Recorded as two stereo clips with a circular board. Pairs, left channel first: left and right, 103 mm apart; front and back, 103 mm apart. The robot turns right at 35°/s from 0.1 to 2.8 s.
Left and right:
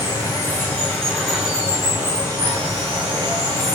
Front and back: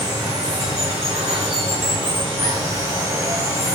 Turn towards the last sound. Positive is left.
turn(degrees=-125)